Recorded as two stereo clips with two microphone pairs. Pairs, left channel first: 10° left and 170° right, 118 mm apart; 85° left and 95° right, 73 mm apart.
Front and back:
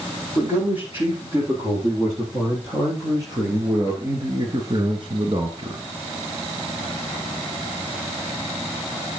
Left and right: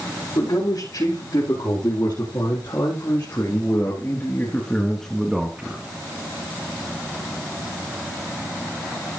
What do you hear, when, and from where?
0.3 s a man speaking: 125° left, 7 m; by 5.8 s 150° right, 1.9 m